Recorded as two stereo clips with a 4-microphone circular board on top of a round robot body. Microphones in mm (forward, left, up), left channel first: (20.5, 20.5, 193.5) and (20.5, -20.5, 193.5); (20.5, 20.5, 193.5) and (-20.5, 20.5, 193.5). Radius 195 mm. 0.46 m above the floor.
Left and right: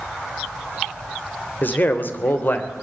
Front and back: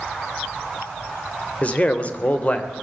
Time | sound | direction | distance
1.6 | a man speaking | 55° left | 3 m